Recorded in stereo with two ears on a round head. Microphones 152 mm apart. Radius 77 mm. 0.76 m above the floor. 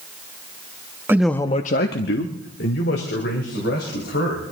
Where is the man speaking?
15° right (ahead or behind), 0.9 m; by 4.4 s 65° left (ahead or behind), 4.5 m.